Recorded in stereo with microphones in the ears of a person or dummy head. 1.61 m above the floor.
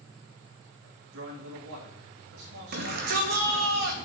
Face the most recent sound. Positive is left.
turn(degrees=-55)  # may be behind; listen again after turning